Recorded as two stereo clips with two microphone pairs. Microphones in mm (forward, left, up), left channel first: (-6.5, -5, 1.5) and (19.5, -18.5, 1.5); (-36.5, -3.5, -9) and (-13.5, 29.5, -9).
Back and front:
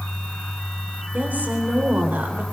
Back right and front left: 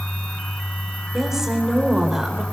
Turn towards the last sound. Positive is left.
turn(degrees=-25)